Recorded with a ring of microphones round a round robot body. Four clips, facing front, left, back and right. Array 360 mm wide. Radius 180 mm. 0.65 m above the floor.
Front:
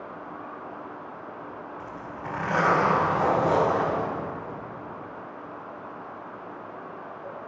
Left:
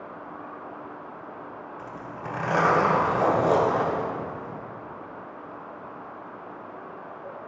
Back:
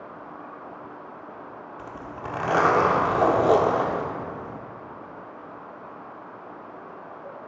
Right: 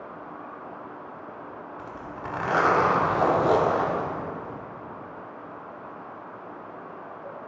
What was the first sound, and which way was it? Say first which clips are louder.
A zipper: even, back 1 dB; 145° right.